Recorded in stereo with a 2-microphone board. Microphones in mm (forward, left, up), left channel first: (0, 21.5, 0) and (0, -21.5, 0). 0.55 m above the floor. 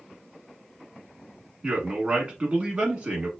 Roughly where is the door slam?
No door slam in this recording.